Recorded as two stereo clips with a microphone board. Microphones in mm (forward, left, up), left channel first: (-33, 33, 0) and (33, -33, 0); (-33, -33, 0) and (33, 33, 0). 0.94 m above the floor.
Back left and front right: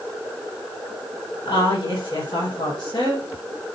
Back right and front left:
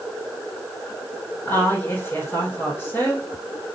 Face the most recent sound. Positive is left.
turn(degrees=160)